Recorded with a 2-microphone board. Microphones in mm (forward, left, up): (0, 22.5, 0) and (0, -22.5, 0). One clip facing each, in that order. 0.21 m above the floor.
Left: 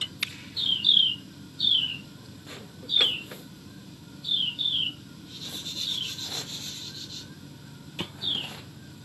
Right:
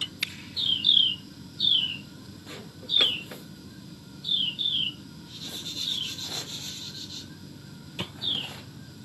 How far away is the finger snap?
About 1.8 m.